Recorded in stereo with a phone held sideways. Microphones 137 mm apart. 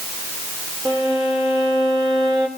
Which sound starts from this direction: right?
A violin, at 0.8 s.